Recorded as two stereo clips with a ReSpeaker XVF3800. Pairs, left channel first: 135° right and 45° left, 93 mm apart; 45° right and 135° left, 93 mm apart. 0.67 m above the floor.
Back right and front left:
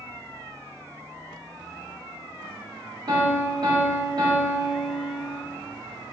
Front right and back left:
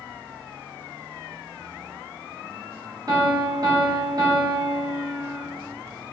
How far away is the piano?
About 0.9 m.